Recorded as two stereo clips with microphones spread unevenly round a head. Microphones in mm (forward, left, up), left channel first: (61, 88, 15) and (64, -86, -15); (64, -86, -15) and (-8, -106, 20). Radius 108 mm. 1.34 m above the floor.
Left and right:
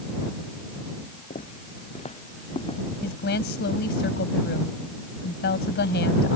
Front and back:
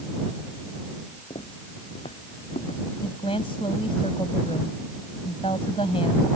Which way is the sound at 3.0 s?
75° left.